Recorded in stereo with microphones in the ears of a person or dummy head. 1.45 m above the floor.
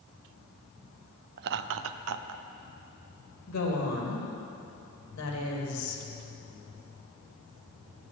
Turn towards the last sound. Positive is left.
turn(degrees=75)  # may be behind; listen again after turning